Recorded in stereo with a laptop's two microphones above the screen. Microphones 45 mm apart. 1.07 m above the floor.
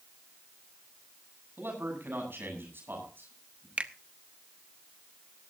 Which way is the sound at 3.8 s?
30° right (ahead or behind).